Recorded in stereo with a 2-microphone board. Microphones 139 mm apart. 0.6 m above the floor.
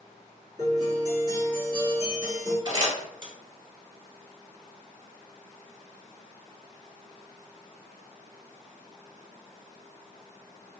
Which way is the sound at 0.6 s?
30° right (ahead or behind).